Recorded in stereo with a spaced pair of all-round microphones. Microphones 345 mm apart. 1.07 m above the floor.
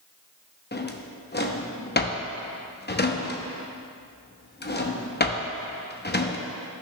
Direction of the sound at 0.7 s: 25° left (ahead or behind).